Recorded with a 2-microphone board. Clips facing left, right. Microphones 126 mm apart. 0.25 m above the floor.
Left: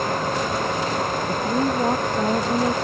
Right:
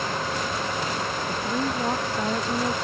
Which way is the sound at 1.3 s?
20° left (ahead or behind).